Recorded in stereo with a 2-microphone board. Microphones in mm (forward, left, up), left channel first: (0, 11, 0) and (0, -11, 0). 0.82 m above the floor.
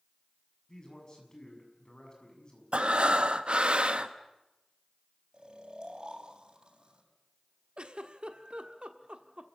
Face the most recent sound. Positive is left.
turn(degrees=-55)  # may be behind; listen again after turning